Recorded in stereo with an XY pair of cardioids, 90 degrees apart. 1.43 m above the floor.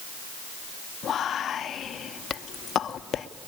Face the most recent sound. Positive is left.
turn(degrees=65)